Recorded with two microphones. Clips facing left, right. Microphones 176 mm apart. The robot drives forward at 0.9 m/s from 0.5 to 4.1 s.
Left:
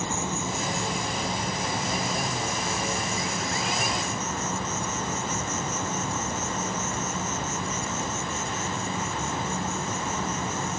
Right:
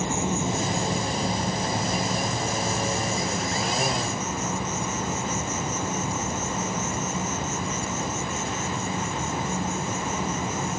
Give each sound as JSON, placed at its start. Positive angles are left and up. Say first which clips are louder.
{"t": 0.0, "sound": "an insect", "louder": "right 4 dB", "side_deg": -20}